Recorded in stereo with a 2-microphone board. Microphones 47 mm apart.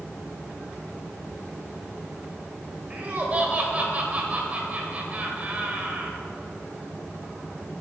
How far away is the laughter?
About 1.5 m.